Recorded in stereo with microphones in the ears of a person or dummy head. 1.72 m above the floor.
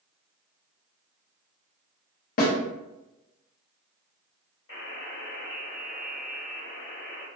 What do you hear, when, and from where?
2.4 s a snare drum: 55° left (ahead or behind), 0.8 m
4.7 s a buzzer: 30° left (ahead or behind), 1.7 m